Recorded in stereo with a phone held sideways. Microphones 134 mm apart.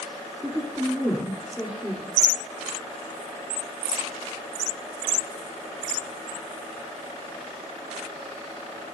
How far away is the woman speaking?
About 3 m.